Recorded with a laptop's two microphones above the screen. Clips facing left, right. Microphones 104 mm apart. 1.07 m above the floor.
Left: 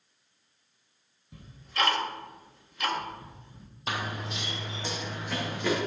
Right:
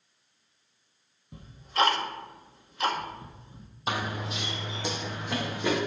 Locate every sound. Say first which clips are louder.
1.3 s ticking: right 5 dB; 30° right (ahead or behind), 1.3 m
3.9 s running footsteps: right 2 dB; 25° right (ahead or behind), 1.2 m; by 5.8 s 15° right (ahead or behind), 3 m